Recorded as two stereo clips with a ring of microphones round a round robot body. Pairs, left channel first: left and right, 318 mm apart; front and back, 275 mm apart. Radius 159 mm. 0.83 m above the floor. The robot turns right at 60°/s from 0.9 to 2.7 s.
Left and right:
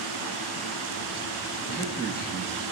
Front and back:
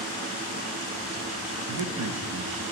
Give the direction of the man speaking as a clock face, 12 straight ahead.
6 o'clock.